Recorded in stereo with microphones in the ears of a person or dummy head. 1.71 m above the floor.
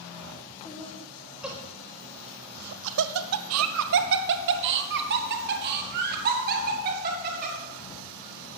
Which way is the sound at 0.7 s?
5° left (ahead or behind).